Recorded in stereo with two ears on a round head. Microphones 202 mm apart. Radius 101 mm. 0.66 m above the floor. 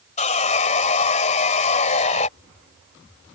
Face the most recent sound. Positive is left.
turn(degrees=35)  # may be behind; listen again after turning